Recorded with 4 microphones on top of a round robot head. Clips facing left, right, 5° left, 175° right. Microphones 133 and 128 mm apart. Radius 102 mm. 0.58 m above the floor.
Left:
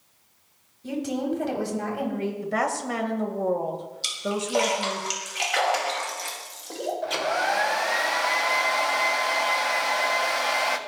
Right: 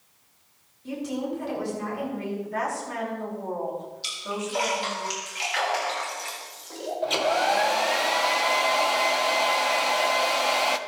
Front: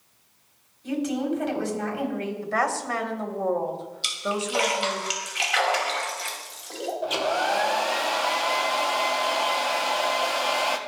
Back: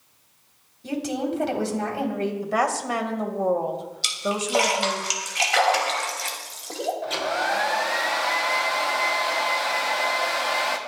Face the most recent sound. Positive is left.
turn(degrees=-50)